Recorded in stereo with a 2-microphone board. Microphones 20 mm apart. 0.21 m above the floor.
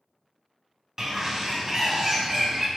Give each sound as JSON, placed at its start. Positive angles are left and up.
{"t": 1.0, "sound": "a bird", "side_deg": -25, "distance_m": 0.6}